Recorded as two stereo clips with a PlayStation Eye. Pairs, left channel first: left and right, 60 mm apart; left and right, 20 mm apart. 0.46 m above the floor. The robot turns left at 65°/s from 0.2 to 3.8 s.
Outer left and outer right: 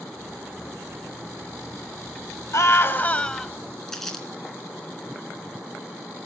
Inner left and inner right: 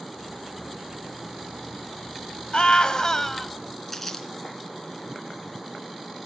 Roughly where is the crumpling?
Centre.